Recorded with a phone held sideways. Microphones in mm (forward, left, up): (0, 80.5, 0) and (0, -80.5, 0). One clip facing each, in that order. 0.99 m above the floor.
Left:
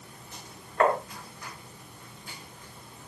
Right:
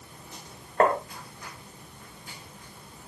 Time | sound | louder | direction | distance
0.8 | tapping | right 1 dB | 40° right (ahead or behind) | 2.5 m